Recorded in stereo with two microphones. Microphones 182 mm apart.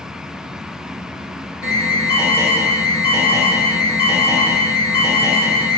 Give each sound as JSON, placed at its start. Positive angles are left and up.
{"t": 1.6, "sound": "an alarm", "side_deg": -10, "distance_m": 3.0}